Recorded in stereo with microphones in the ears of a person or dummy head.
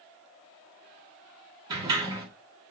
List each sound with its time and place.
1.7 s a sliding door: 20° right (ahead or behind), 2 m